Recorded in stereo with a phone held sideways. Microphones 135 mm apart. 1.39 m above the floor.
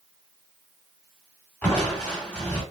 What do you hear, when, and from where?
1.6 s crushing: 10° left (ahead or behind), 1.2 m